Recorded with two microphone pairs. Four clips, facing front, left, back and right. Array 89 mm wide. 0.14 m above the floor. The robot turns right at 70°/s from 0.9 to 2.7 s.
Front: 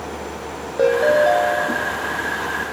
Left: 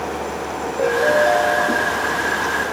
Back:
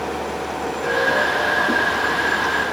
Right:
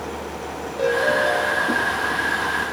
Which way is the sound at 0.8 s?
20° left.